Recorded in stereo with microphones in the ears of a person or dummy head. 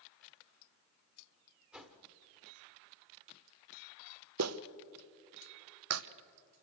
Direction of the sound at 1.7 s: 5° right (ahead or behind).